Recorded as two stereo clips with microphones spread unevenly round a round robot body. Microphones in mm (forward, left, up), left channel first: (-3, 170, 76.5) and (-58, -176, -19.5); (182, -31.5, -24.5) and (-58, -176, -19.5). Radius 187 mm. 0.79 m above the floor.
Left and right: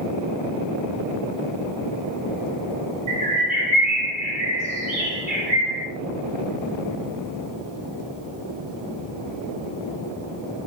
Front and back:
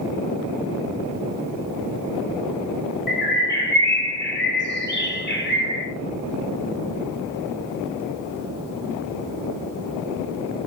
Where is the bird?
20° right, 0.7 m.